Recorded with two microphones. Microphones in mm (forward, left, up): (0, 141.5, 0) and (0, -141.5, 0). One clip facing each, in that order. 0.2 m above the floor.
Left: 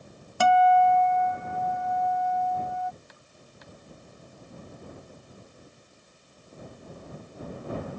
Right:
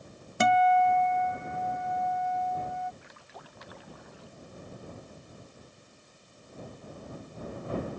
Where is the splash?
80° right.